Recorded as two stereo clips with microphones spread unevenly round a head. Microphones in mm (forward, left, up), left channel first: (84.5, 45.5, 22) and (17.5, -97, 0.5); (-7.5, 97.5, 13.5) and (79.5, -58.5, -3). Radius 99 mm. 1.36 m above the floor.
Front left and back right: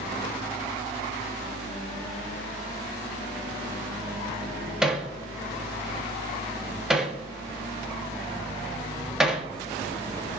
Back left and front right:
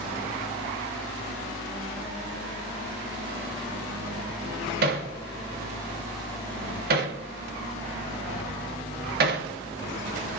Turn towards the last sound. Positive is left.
turn(degrees=-30)